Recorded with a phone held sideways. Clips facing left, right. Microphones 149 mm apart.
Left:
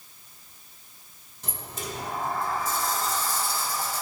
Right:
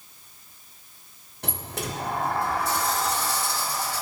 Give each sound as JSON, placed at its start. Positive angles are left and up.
{"t": 1.4, "sound": "a sliding door", "side_deg": -70, "distance_m": 0.5}